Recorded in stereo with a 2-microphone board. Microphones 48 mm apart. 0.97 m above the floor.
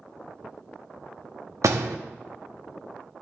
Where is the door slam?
75° right (ahead or behind), 0.9 m.